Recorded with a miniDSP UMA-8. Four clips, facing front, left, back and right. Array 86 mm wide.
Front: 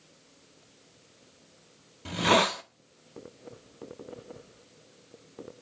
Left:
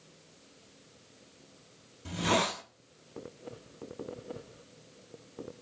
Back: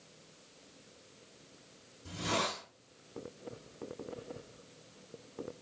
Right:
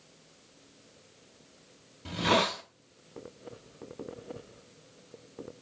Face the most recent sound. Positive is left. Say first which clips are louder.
# right 2 dB, front 11 dB
turn(degrees=-15)